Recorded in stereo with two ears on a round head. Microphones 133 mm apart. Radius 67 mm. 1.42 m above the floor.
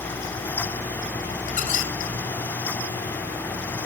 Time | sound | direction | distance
1.5 | a squeak | 60° left (ahead or behind) | 2.5 m